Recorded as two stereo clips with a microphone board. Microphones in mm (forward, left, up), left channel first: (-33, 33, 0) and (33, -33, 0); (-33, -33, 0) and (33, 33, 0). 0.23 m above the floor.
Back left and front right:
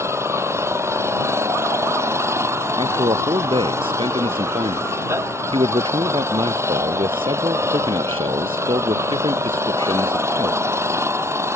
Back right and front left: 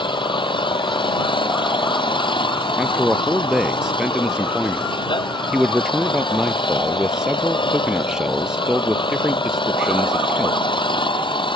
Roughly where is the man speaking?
Ahead right.